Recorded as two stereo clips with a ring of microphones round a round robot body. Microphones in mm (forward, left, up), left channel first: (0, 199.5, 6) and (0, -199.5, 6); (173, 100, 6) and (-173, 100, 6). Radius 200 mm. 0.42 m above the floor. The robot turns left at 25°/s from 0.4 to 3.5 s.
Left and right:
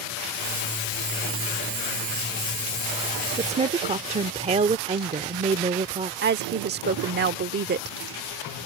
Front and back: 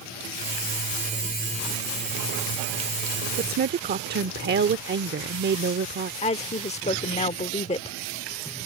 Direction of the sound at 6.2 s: 55° right.